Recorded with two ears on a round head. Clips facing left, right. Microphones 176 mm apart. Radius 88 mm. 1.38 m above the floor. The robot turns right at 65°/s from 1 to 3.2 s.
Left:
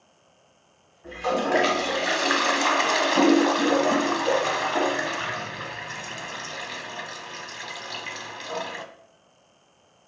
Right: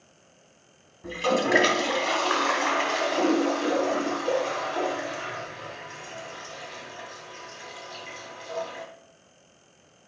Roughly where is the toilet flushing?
Ahead right.